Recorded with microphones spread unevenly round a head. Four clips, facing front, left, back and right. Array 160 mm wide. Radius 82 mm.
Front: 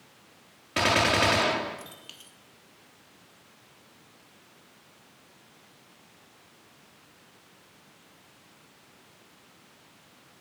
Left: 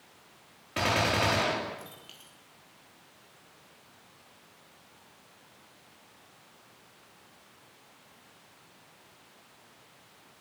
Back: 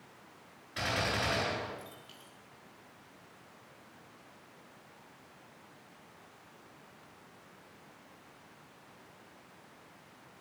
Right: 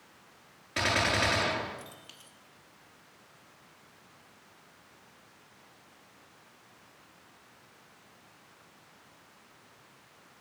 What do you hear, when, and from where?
0.8 s a gunshot: 5° left, 3.5 m